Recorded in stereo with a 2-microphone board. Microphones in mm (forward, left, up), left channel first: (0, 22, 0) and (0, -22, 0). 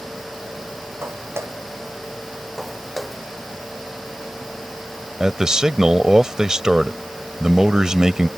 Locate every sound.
1.0 s footsteps: 85° right
2.6 s footsteps: centre (ahead or behind)
5.2 s a man speaking: 15° right (ahead or behind)